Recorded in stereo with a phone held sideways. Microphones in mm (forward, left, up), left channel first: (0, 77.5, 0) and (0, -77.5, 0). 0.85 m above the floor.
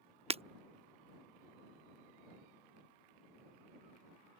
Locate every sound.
0.3 s breaking glass: 40° right (ahead or behind)